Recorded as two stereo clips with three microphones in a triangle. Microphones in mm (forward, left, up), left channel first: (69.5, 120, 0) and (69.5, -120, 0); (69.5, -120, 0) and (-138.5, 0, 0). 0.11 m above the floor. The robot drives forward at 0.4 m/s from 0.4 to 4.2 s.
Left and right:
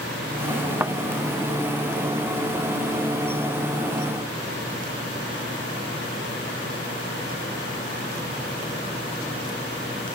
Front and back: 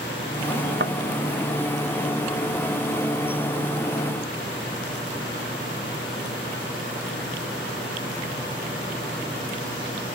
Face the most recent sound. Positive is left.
turn(degrees=-170)